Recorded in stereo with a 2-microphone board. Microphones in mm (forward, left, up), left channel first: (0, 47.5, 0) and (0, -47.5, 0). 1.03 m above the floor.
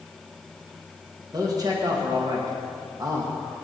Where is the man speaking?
40° right (ahead or behind), 1.5 m.